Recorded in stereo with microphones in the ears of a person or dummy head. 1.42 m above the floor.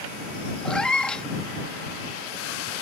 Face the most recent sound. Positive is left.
turn(degrees=5)  # may be behind; listen again after turning